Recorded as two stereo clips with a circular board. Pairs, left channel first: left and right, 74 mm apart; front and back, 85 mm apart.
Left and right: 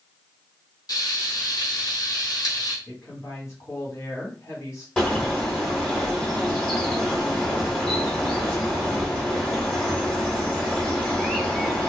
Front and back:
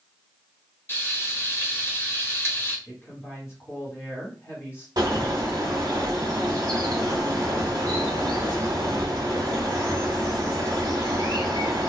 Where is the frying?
60° left, 1.0 m.